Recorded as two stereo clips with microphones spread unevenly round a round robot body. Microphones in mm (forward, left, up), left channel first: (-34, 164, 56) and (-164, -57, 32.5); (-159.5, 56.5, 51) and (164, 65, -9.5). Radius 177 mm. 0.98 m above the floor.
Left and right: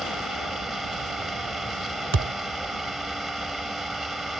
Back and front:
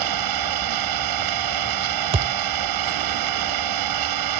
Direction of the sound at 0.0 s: 30° right.